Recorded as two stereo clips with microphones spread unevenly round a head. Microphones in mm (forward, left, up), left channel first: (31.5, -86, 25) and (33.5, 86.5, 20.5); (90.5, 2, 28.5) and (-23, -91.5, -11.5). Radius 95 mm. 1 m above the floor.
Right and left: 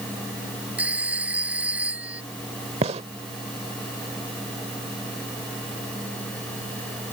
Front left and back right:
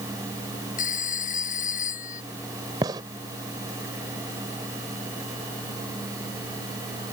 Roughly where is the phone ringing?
Ahead.